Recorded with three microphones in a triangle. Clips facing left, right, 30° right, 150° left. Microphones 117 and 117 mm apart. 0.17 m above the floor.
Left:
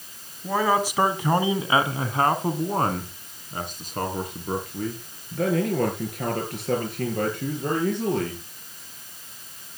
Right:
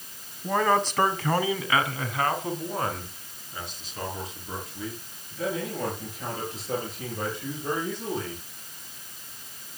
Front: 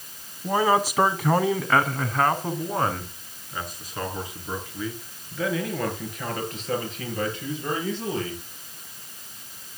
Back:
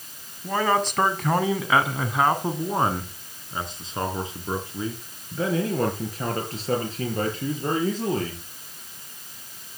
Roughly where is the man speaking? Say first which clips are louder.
Left 1 dB, front 2 dB; ahead.